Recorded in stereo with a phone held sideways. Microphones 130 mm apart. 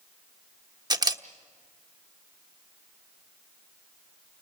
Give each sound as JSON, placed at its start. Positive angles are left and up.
{"t": 0.9, "sound": "a camera shutter", "side_deg": -30, "distance_m": 1.1}